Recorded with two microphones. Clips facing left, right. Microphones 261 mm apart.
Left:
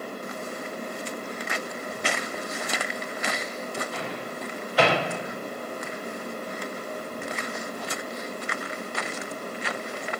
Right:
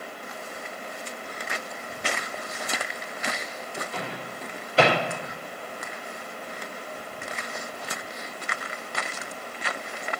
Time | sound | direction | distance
3.9 | a microwave | 25° right (ahead or behind) | 2 m